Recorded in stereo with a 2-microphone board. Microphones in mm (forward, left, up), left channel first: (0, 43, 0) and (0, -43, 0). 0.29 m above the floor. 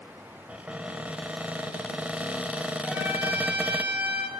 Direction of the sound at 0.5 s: 15° right (ahead or behind).